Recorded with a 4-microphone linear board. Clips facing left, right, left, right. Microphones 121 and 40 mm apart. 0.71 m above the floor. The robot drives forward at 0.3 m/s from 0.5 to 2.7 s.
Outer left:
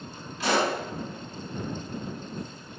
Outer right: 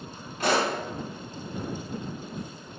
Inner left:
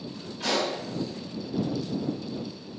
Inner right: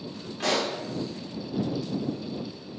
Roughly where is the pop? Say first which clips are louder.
Even, inner right 1 dB; right.